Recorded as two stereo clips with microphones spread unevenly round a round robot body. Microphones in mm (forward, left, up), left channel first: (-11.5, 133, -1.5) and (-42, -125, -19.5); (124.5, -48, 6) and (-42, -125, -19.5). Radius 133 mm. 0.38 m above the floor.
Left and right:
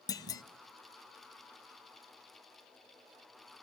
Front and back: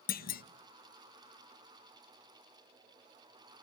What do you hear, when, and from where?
0.1 s a clunk: 10° left, 0.8 m